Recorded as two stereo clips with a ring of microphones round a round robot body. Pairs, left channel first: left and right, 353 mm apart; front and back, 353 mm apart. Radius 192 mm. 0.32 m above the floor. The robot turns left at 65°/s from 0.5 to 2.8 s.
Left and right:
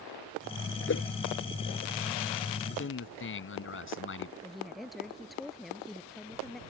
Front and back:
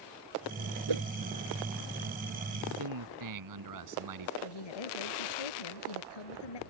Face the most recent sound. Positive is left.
turn(degrees=0)